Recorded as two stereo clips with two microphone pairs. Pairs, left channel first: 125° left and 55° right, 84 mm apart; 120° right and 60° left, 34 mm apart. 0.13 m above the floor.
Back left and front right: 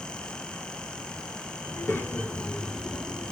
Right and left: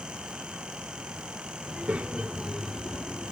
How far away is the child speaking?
About 1.4 m.